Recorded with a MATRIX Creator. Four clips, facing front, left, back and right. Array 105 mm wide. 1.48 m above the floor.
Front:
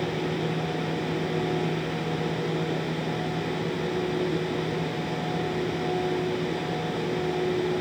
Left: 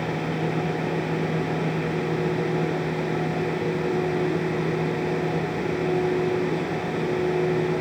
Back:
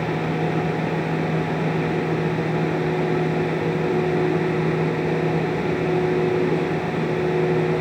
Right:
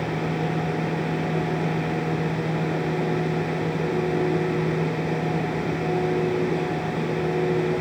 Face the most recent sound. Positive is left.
No sound to turn to.